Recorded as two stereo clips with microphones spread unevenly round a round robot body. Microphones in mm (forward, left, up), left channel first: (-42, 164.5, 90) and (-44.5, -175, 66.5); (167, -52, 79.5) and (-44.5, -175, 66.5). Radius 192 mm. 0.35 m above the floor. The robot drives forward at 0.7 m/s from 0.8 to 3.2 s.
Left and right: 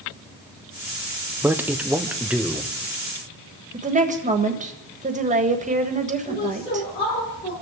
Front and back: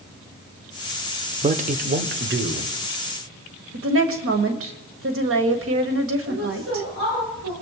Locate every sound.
1.4 s a man speaking: 160° right, 0.9 m; by 2.8 s 175° right, 1.5 m
3.7 s a woman speaking: 155° right, 1.6 m
6.2 s a woman speaking: 165° left, 9 m